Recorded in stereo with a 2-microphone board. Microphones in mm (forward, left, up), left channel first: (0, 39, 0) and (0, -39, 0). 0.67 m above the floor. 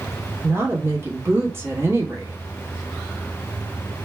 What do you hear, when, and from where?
0.4 s a woman speaking: 30° right (ahead or behind), 1.1 m